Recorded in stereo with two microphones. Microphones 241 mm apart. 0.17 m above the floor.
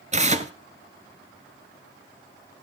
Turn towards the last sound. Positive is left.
turn(degrees=-30)  # may be behind; listen again after turning